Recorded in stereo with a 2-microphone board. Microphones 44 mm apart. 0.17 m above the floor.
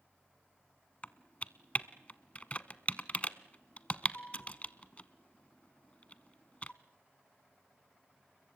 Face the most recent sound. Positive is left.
turn(degrees=30)  # may be behind; listen again after turning